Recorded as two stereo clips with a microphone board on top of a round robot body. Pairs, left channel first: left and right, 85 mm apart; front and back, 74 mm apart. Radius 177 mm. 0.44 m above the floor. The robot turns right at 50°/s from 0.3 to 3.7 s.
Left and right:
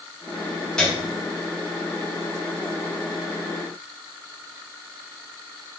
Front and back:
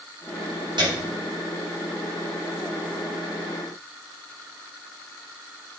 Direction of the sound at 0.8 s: 175° left.